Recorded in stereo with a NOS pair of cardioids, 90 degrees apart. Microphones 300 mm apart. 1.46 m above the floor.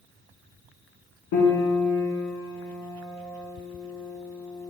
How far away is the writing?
I don't hear writing.